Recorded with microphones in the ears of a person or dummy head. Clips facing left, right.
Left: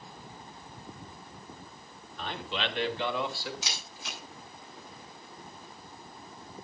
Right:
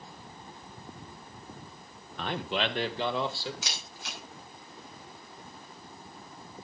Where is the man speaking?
50° right (ahead or behind), 1.3 m; by 3.5 s 20° right (ahead or behind), 2 m.